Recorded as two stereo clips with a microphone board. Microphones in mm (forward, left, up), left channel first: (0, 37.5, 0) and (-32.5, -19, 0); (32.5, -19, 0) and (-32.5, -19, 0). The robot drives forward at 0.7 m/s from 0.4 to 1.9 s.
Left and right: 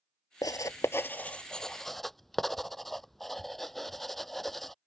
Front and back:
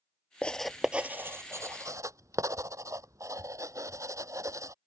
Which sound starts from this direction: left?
Writing, at 0.4 s.